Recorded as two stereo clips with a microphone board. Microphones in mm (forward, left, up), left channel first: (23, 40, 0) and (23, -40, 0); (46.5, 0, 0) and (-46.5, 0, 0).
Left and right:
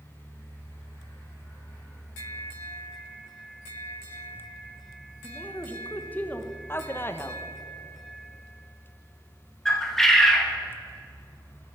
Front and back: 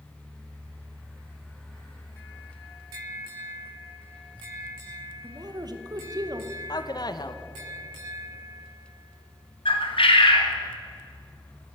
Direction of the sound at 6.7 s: 30° left.